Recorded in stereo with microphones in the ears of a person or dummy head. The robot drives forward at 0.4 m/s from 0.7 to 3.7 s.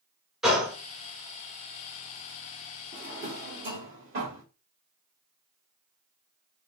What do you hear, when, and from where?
0.4 s a gunshot: 5° right (ahead or behind), 0.8 m
2.9 s a drawer: 45° right (ahead or behind), 1.1 m